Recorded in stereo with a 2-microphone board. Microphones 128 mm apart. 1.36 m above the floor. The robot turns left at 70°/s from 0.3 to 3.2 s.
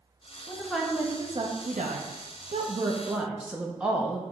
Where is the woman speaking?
20° left, 0.6 m; by 4.2 s 170° right, 0.6 m.